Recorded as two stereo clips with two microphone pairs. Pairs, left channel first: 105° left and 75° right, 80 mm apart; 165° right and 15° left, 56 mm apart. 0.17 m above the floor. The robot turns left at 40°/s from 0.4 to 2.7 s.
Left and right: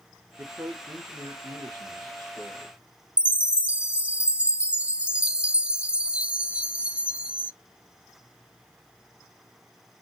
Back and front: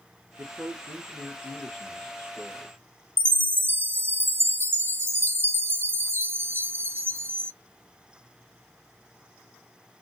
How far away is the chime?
About 0.6 m.